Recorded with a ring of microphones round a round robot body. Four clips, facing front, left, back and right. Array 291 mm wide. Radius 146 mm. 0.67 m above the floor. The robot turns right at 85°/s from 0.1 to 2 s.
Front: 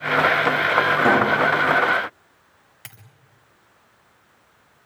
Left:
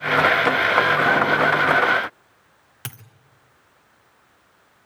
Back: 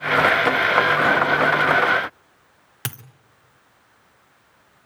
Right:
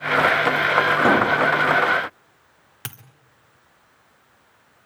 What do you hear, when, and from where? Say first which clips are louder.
1.0 s a pop: right 1 dB, front 1 dB; 85° right, 3.5 m; by 1.4 s 50° right, 3.5 m
2.9 s a dropped coin: even, back 14 dB; straight behind, 1.1 m